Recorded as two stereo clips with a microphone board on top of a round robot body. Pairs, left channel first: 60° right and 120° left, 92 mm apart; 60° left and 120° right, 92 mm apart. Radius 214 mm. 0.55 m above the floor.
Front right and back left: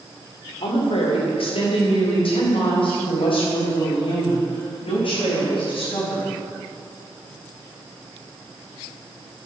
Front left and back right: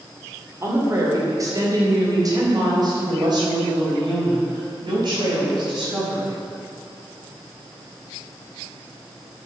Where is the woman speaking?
60° right, 2.5 m; by 6.2 s 85° right, 6.5 m.